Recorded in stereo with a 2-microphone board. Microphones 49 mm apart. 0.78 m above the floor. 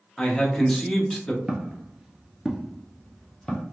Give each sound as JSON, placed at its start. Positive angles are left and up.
{"t": 0.2, "sound": "a man speaking", "side_deg": 10, "distance_m": 0.8}
{"t": 1.5, "sound": "footsteps", "side_deg": -20, "distance_m": 0.9}